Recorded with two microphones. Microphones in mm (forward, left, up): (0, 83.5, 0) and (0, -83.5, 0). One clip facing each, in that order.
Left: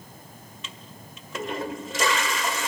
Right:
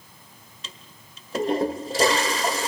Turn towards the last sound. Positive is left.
turn(degrees=-35)  # may be behind; listen again after turning